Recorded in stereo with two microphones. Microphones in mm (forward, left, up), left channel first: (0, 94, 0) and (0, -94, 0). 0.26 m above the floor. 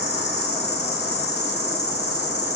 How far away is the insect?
About 1.2 m.